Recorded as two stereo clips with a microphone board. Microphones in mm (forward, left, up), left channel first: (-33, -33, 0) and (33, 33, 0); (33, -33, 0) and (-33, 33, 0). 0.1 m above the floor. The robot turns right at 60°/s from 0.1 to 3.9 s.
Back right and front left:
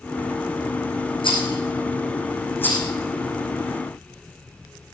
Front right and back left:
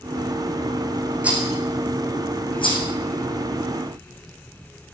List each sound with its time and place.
1.2 s a rattle: 150° right, 4.5 m; by 2.9 s 55° right, 4.5 m